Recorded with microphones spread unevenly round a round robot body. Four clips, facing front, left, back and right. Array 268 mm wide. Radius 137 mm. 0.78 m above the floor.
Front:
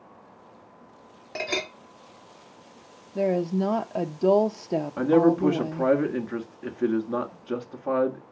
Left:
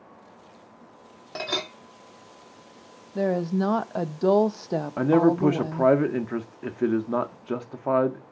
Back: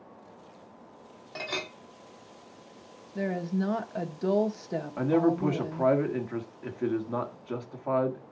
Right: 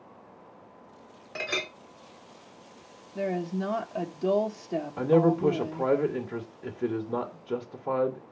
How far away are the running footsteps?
No running footsteps in this recording.